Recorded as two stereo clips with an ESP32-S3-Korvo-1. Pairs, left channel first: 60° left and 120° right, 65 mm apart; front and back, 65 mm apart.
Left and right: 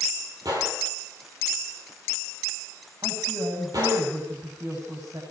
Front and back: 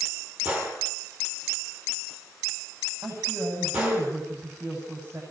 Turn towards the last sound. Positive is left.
turn(degrees=-125)